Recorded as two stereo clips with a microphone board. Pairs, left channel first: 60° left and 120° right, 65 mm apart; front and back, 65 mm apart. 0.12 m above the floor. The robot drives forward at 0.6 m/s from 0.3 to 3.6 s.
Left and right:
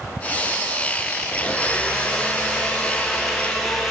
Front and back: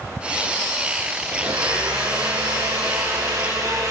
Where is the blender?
140° left, 4.5 m; by 3.9 s 150° left, 5.5 m.